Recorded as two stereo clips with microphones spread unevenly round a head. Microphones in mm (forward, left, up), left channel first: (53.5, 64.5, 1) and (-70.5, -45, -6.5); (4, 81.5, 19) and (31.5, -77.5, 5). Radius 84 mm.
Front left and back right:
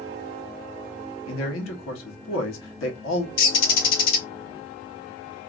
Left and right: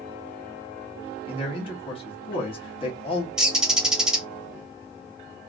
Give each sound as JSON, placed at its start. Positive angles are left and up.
{"t": 1.3, "sound": "a man speaking", "azimuth_deg": 40, "distance_m": 1.3}
{"t": 3.4, "sound": "a bird", "azimuth_deg": 5, "distance_m": 0.9}